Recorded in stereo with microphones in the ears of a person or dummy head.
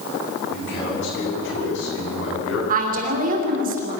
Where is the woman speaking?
50° right (ahead or behind), 3 m.